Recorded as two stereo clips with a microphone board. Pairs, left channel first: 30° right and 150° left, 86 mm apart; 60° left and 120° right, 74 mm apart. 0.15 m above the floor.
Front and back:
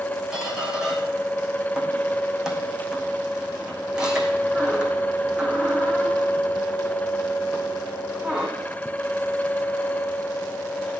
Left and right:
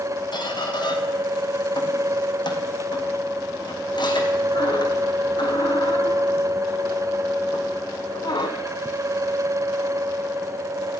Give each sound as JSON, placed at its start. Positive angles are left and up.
{"t": 0.3, "sound": "a squeak", "azimuth_deg": 70, "distance_m": 2.0}